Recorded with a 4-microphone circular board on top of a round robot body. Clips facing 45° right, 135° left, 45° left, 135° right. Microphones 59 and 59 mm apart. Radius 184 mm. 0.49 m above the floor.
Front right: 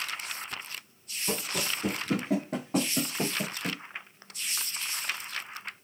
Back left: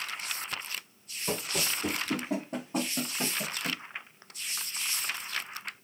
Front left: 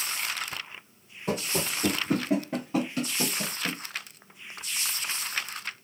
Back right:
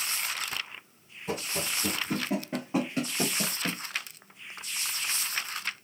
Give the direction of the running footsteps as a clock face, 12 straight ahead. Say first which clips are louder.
Even, front left 3 dB; 10 o'clock.